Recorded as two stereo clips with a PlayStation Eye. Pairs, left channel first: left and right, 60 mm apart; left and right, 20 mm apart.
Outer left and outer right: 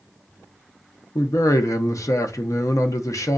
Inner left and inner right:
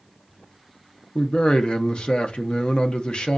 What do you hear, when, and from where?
1.1 s a man speaking: 60° left (ahead or behind), 0.6 m